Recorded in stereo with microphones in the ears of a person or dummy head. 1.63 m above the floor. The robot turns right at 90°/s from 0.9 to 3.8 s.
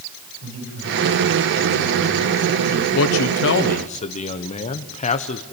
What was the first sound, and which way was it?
A man speaking, 75° right.